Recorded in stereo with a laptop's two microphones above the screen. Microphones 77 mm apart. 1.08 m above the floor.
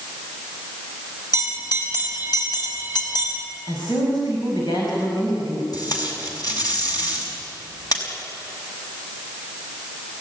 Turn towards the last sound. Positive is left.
turn(degrees=60)  # may be behind; listen again after turning